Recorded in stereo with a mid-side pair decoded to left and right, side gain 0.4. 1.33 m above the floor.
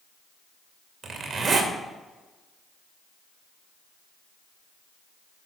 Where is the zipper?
45° right, 2.5 m.